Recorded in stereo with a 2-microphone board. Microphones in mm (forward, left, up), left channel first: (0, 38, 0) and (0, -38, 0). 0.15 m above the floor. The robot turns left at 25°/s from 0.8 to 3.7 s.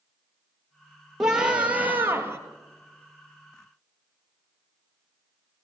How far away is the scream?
About 3 m.